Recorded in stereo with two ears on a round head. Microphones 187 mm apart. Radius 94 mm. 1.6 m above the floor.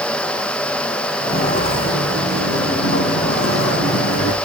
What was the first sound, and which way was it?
Footsteps, 25° left (ahead or behind).